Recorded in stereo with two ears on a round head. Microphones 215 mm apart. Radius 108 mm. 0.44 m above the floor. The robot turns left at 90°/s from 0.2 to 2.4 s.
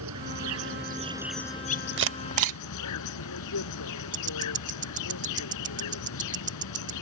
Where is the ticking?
35° right (ahead or behind).